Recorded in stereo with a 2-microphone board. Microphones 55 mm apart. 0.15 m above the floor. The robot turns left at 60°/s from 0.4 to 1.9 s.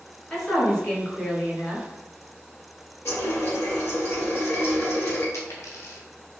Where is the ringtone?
I don't hear a ringtone.